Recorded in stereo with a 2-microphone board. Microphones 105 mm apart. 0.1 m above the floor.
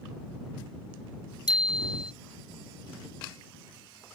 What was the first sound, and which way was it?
A bicycle bell, 45° left (ahead or behind).